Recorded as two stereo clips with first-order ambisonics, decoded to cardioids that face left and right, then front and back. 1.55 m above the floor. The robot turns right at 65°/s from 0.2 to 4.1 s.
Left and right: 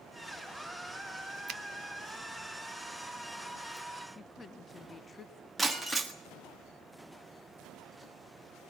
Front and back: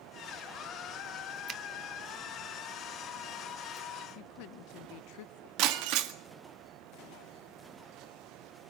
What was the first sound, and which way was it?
A finger snap, 130° right.